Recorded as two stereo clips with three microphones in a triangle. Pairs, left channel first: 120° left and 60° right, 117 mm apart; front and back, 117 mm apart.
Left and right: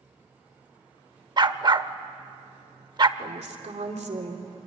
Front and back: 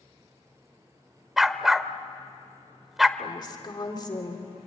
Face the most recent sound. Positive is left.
turn(degrees=-50)